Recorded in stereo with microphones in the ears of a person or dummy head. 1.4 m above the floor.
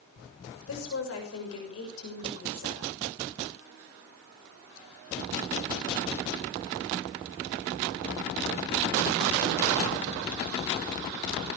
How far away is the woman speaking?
About 6.5 m.